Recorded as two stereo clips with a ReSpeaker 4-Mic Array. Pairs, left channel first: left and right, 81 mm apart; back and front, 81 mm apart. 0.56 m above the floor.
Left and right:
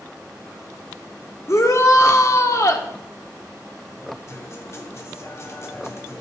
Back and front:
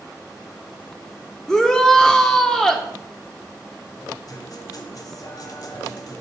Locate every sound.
1.5 s a shout: 100° left, 1.3 m
4.3 s a guitar: 140° left, 1.2 m